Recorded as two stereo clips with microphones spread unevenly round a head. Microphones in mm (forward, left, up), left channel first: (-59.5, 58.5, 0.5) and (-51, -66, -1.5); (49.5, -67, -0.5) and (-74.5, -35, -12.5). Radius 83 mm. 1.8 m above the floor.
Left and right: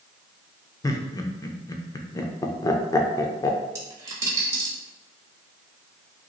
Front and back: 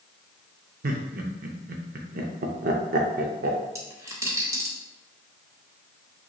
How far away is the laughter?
About 0.6 m.